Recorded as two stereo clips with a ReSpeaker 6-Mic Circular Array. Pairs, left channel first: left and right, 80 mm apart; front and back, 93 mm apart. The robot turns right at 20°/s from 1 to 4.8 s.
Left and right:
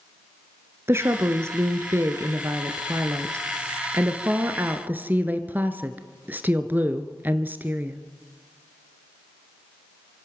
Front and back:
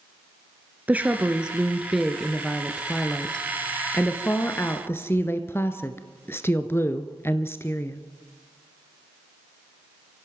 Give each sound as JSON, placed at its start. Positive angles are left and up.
{"t": 0.9, "sound": "a woman speaking", "azimuth_deg": -120, "distance_m": 1.3}